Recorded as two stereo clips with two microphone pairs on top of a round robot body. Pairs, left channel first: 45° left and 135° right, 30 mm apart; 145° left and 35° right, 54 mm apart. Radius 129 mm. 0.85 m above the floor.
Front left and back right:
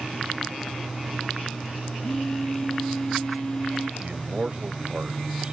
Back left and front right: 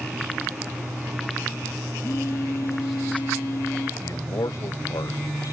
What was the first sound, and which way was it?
A phone buzzing, 110° left.